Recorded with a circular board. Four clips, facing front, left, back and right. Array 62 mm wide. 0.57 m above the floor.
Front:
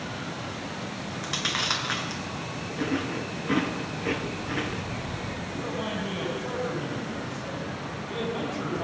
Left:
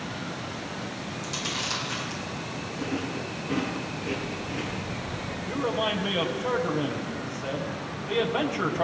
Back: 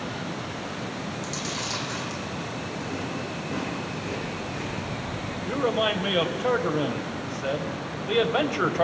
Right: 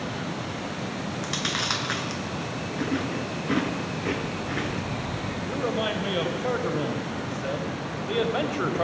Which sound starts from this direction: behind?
A man speaking, at 5.5 s.